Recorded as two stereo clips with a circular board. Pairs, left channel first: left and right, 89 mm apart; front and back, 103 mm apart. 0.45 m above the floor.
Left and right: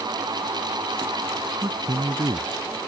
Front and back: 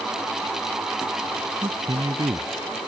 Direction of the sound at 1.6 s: 130° right.